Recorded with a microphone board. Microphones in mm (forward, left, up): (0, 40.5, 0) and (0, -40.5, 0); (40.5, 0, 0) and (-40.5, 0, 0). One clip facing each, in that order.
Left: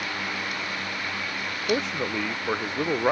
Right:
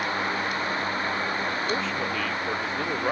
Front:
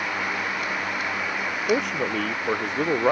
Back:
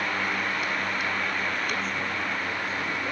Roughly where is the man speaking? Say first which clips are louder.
Left 1 dB, front 6 dB; ahead.